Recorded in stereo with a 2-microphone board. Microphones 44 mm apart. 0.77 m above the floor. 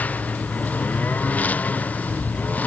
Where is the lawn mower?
35° left (ahead or behind).